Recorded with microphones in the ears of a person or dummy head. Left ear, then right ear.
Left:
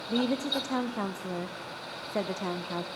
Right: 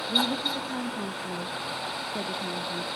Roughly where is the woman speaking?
Left.